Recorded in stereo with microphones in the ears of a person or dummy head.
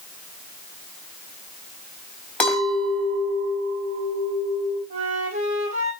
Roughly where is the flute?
Right.